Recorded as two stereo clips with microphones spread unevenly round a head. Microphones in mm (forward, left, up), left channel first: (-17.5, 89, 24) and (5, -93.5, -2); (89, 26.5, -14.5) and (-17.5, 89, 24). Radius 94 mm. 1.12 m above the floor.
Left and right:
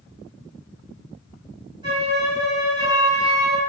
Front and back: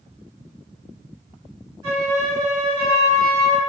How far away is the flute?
About 1.9 m.